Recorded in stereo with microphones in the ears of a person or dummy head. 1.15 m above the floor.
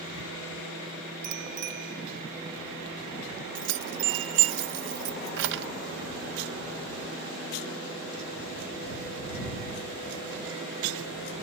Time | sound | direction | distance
1.2 | a bicycle bell | 60° right (ahead or behind) | ?
3.5 | keys jangling | 65° right (ahead or behind) | ?